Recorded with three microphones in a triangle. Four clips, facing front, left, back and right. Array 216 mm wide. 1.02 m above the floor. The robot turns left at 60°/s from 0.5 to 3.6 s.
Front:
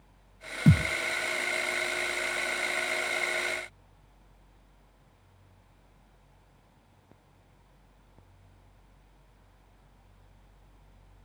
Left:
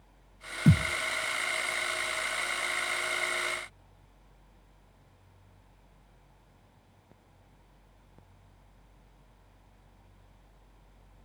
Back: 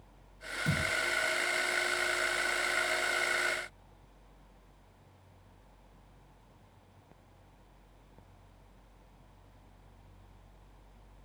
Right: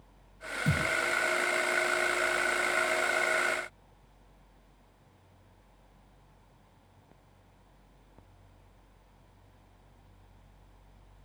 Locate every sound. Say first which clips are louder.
0.7 s a thud: left 5 dB, front 10 dB; 35° left, 1.3 m; by 0.9 s 20° left, 1.3 m